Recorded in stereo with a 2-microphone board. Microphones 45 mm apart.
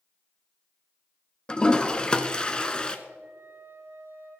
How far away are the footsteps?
I don't hear footsteps.